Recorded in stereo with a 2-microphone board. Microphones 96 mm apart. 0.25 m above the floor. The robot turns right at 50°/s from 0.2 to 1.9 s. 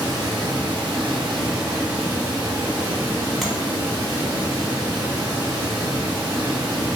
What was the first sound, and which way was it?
Running water, 130° right.